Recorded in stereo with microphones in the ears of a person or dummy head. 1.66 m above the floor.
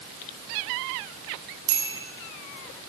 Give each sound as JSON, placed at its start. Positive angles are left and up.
{"t": 1.7, "sound": "a bicycle bell", "side_deg": -80, "distance_m": 9.5}